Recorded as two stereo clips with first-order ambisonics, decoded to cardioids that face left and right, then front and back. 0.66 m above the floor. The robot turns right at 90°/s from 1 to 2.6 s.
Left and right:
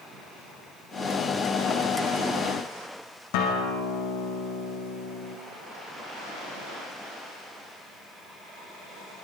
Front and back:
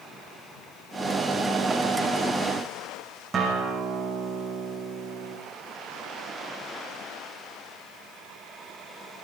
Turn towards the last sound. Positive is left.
turn(degrees=105)